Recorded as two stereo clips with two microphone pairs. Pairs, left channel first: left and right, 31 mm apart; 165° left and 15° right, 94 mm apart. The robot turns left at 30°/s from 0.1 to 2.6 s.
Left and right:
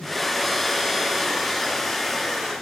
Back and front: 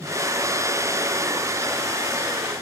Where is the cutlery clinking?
I don't hear cutlery clinking.